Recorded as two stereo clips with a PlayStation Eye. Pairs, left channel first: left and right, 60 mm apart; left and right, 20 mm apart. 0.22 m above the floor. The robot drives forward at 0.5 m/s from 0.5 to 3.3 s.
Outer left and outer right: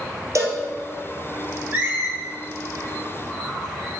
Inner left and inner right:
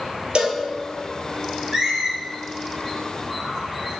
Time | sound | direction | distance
0.3 | a cowbell | 55° right (ahead or behind) | 1.6 m
1.7 | a squeak | 30° right (ahead or behind) | 2.5 m